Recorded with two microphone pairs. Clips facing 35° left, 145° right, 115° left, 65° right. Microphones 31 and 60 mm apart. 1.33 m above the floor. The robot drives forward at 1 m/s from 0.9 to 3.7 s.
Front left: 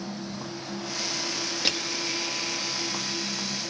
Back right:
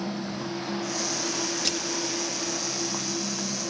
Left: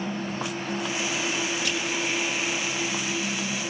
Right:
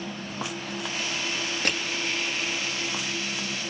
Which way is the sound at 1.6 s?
25° right.